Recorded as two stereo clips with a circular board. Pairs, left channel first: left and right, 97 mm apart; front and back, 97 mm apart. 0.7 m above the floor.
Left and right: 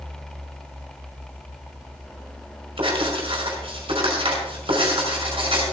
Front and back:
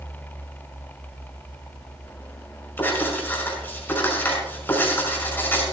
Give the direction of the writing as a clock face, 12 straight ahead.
2 o'clock.